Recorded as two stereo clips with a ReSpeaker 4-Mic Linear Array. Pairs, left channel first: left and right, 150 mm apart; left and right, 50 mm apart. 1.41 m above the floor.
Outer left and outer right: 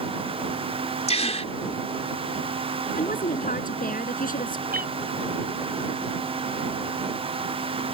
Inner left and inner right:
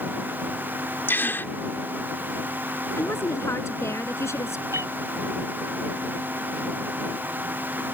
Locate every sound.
1.1 s a gasp: 45° left (ahead or behind)
3.0 s a woman speaking: 65° left (ahead or behind)
4.7 s a cat meowing: 80° right